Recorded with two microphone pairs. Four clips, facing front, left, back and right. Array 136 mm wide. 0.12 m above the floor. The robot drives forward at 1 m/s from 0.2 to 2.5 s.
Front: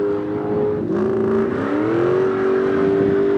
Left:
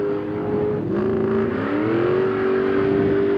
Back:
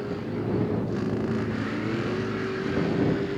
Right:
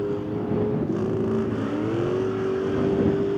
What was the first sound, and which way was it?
A vehicle, 15° left.